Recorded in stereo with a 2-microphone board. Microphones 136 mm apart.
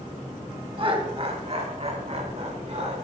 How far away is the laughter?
About 1.9 m.